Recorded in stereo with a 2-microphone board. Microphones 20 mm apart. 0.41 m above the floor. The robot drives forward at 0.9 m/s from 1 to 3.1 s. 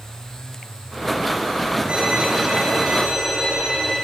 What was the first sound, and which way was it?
A violin, 55° right (ahead or behind).